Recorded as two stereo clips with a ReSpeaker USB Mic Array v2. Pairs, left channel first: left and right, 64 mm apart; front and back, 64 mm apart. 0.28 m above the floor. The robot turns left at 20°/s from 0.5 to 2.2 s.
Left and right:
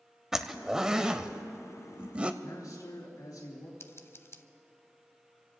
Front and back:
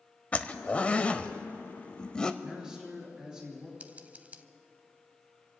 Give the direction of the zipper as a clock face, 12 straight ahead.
1 o'clock.